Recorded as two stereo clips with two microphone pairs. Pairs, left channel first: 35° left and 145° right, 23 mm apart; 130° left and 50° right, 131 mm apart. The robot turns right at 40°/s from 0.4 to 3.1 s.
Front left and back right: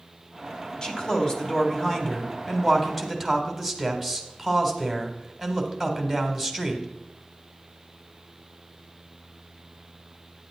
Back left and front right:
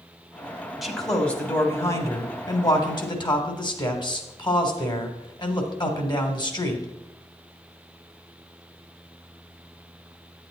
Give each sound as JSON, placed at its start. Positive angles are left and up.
{"t": 0.8, "sound": "a man speaking", "azimuth_deg": 35, "distance_m": 1.4}